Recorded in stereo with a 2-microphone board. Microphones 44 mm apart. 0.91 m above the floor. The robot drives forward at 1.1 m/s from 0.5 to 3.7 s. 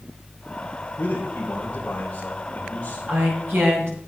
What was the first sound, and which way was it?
A man speaking, 45° left (ahead or behind).